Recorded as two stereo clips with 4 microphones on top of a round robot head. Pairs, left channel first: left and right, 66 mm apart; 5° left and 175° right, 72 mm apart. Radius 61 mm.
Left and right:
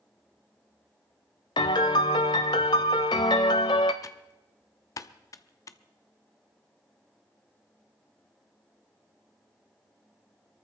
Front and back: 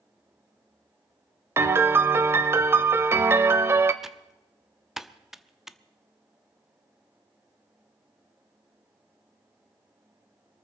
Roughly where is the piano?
Behind left.